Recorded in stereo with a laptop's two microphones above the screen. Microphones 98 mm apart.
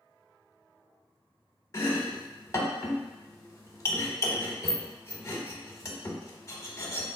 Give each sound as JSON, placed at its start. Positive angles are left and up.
{"t": 1.7, "sound": "chopping", "side_deg": 30, "distance_m": 0.7}